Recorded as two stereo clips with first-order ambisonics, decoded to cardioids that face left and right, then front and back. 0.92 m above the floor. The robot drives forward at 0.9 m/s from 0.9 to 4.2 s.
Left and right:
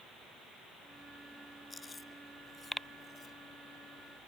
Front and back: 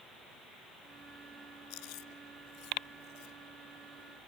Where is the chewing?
15° left; by 3.4 s 20° left.